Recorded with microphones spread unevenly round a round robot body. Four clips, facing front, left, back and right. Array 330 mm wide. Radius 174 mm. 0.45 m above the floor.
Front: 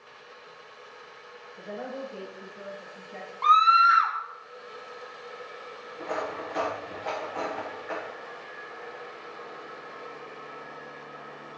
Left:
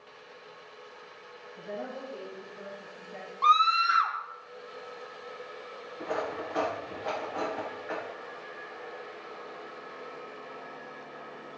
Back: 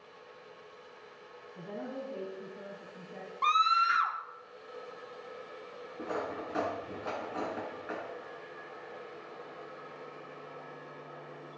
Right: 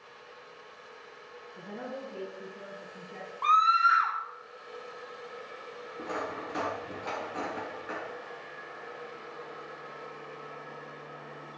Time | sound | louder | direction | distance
1.6 | a woman speaking | left 2 dB, front 4 dB | 155° right | 4 m
3.4 | a scream | even, front 8 dB | 160° left | 0.8 m
6.0 | cutlery clinking | left 3 dB, front 4 dB | 135° right | 3 m